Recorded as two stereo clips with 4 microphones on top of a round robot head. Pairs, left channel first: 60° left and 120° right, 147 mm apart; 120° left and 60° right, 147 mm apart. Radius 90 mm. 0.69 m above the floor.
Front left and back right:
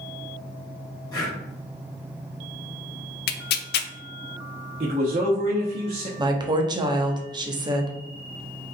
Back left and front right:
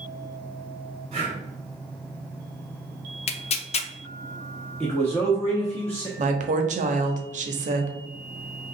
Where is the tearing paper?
75° left, 0.5 m.